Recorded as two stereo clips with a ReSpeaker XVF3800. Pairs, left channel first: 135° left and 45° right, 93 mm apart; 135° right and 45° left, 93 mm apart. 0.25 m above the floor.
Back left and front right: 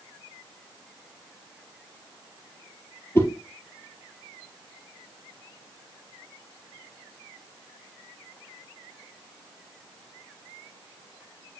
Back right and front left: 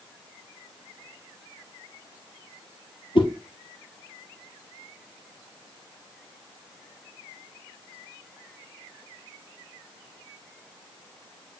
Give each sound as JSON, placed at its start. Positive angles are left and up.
{"t": 3.1, "sound": "a whoosh", "azimuth_deg": -165, "distance_m": 2.0}